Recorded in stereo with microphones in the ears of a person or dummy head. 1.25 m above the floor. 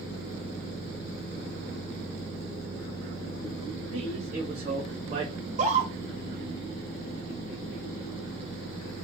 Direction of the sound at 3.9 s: 45° right (ahead or behind).